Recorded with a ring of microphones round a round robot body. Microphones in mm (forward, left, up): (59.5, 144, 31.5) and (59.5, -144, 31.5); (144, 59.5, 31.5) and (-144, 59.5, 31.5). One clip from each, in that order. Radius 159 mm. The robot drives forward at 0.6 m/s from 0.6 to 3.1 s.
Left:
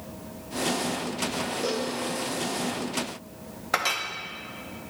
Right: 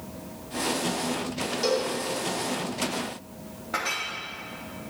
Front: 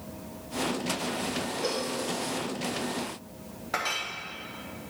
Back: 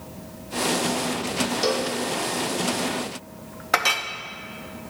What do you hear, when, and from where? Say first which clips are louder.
1.6 s a cowbell: right 7 dB, back 7 dB; 165° right, 0.8 m
3.7 s a clink: left 3 dB, back 9 dB; 140° left, 0.6 m